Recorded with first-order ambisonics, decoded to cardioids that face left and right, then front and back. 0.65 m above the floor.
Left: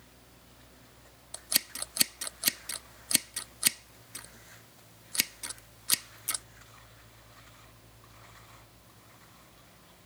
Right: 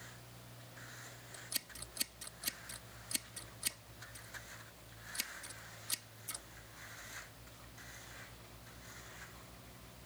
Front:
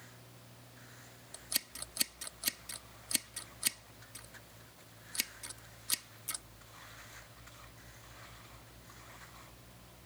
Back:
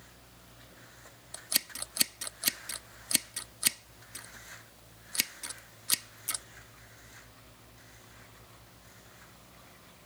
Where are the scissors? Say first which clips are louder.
Left 12 dB, back 6 dB; 115° left.